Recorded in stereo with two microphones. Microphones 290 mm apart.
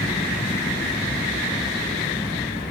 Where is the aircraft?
15° left (ahead or behind); by 2.7 s 10° left (ahead or behind).